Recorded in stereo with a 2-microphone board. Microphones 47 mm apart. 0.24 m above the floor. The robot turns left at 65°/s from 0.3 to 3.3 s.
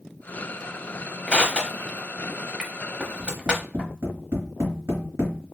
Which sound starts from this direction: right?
Tapping, at 3.2 s.